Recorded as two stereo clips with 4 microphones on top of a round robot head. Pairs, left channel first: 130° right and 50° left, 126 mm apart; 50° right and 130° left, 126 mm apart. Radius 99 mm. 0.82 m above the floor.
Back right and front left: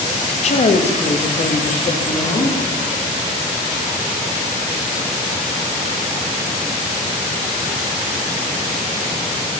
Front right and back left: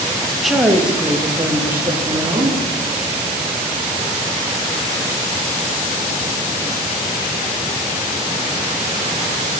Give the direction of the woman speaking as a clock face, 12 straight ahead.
4 o'clock.